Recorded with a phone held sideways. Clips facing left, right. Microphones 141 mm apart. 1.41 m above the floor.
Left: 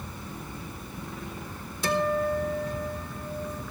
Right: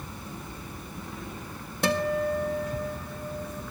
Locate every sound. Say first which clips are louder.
1.8 s a guitar: even; 65° right (ahead or behind), 1.5 m